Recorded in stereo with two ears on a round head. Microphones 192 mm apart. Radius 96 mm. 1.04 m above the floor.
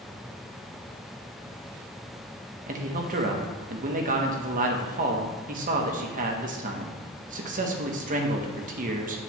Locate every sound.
2.7 s a man speaking: 40° right (ahead or behind), 0.9 m